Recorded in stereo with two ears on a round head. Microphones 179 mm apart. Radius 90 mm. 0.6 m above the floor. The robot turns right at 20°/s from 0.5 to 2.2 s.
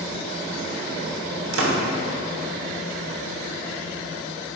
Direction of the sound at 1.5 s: 70° right (ahead or behind).